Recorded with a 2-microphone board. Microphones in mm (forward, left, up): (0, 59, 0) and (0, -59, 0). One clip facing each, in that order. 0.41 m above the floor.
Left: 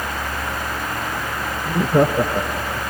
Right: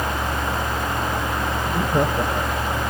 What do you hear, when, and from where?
1.6 s laughter: 25° left (ahead or behind)